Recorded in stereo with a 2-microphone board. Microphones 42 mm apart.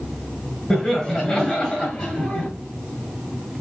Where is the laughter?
10° left (ahead or behind), 1.4 m; by 2.5 s 15° left (ahead or behind), 1.5 m.